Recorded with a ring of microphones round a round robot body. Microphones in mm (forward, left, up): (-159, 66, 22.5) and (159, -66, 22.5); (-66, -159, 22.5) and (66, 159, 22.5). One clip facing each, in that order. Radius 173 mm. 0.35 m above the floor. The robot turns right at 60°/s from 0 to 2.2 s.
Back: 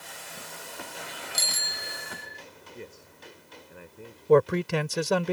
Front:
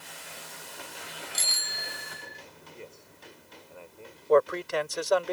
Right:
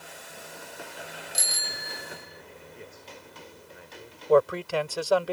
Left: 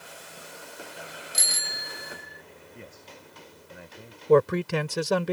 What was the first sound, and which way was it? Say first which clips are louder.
A bicycle bell: back 3 dB, right 1 dB; 80° left.